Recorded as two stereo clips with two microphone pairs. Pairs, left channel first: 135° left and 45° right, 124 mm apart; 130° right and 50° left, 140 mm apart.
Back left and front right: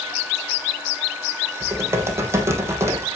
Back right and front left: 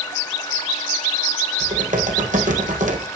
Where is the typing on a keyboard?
20° left, 3 m.